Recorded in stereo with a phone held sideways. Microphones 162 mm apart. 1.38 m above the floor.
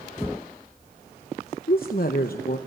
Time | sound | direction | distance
1.7 | a woman speaking | 65° left (ahead or behind) | 0.8 m